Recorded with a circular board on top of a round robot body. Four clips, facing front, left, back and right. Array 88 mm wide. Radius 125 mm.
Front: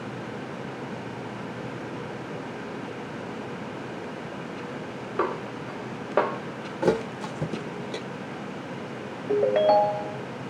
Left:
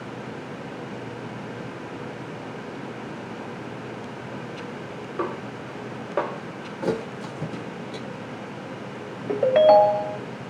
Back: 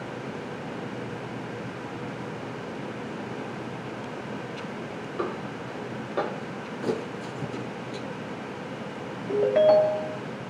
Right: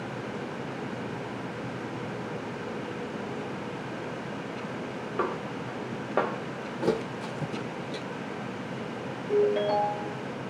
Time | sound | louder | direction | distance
5.2 | a snare drum | left 1 dB, front 4 dB | 10° right | 1.0 m
6.8 | a thud | left 1 dB, front 6 dB | 5° right | 0.6 m
9.3 | a ringtone | left 9 dB, back 1 dB | 85° left | 0.8 m